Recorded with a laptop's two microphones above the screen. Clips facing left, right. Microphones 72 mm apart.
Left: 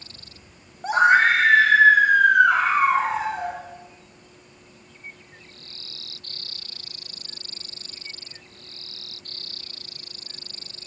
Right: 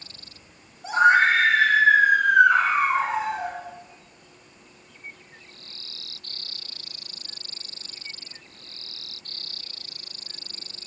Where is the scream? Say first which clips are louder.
Left 1 dB; 50° left (ahead or behind), 0.9 m; by 3.6 s 80° left, 3.5 m.